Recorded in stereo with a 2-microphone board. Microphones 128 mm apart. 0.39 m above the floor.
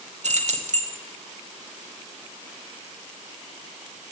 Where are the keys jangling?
65° right (ahead or behind), 1.1 m.